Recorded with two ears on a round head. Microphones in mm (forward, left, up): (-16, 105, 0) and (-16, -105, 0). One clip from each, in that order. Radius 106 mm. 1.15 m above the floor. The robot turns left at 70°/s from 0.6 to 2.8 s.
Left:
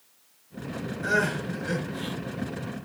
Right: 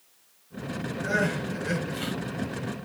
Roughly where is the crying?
Ahead left.